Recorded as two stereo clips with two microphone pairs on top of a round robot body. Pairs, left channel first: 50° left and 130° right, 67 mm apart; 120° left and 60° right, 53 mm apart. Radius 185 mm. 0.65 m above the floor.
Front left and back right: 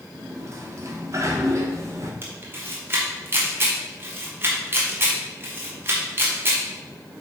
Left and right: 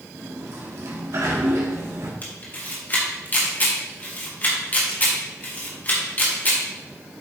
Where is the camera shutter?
175° left, 1.9 m.